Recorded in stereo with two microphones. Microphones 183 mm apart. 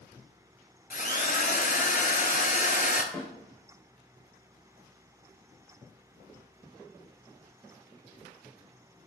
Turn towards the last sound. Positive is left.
turn(degrees=0)  # may be behind; listen again after turning